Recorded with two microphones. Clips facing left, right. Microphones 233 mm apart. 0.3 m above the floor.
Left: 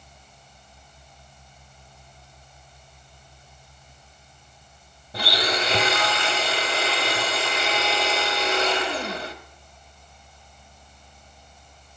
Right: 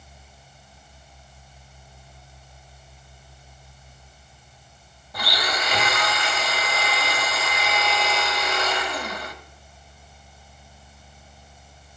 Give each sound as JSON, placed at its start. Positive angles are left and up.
{"t": 5.1, "sound": "a blender", "side_deg": 30, "distance_m": 0.6}